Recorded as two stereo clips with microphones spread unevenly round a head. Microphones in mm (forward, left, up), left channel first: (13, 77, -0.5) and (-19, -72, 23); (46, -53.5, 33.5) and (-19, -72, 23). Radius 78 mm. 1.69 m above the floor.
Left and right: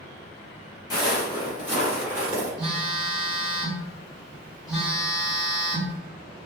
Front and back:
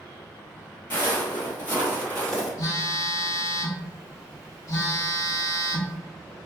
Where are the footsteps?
10° left, 2.0 m; by 2.5 s 40° right, 2 m.